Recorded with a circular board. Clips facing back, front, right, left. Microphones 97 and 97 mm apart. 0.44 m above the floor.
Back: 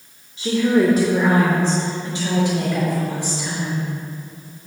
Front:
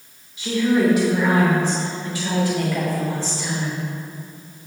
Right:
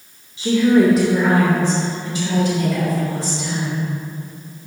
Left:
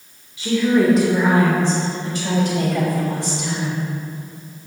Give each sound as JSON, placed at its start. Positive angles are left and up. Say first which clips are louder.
{"t": 0.4, "sound": "a woman speaking", "louder": "back 2 dB, right 3 dB", "azimuth_deg": -140, "distance_m": 1.1}